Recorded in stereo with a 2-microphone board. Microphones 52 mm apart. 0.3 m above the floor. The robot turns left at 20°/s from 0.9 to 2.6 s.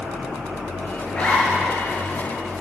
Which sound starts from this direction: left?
A zipper, at 1.1 s.